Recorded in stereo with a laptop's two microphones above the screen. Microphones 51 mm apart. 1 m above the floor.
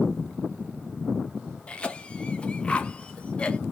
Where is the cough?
20° left (ahead or behind), 0.7 m.